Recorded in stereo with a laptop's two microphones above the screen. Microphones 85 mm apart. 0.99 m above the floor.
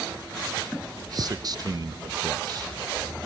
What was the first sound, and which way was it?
A man speaking, 50° right (ahead or behind).